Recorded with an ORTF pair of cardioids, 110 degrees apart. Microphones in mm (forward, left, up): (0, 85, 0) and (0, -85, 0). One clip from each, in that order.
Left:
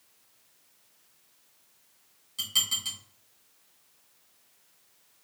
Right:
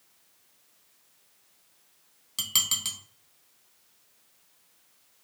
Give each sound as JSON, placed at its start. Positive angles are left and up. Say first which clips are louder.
{"t": 2.4, "sound": "dishes clattering", "louder": "right 1 dB", "azimuth_deg": -45, "distance_m": 1.1}